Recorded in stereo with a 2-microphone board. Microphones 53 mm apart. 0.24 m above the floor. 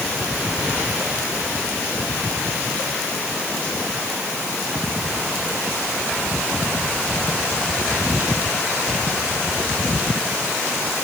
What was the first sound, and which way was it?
Only background noise.